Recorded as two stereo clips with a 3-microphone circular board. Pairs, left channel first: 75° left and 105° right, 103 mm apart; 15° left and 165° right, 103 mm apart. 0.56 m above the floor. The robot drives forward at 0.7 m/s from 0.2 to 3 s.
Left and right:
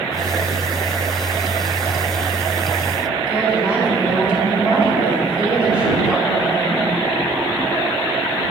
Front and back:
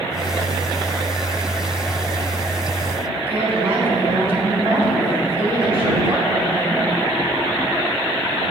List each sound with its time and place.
3.3 s a woman speaking: straight behind, 4.5 m